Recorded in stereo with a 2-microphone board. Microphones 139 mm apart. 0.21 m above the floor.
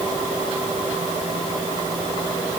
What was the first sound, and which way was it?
Only background noise.